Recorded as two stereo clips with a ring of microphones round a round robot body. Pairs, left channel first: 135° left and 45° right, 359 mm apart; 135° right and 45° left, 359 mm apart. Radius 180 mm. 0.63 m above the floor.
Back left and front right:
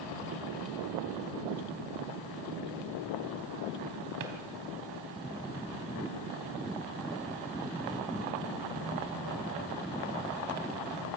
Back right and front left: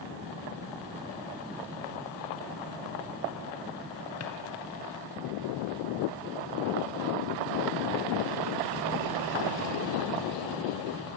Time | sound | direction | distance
4.2 | a drawer | 85° right | 3 m